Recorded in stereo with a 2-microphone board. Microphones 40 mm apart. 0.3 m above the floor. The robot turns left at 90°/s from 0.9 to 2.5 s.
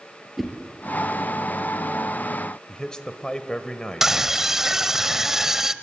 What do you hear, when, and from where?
0.4 s a whoosh: centre (ahead or behind), 3.5 m
2.7 s a man speaking: 20° left (ahead or behind), 1.4 m
4.0 s a scream: 15° right (ahead or behind), 1.0 m